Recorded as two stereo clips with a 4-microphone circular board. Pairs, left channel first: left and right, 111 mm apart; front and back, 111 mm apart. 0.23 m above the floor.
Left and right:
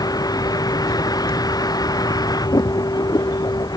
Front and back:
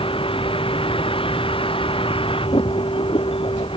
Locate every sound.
0.0 s a vehicle: 35° left